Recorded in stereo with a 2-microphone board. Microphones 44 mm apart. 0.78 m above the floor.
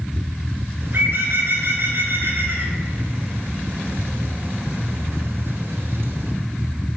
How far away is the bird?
About 4 m.